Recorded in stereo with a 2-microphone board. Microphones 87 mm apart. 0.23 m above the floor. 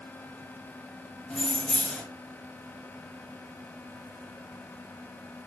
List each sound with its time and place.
1.3 s keys jangling: 10° left (ahead or behind), 0.6 m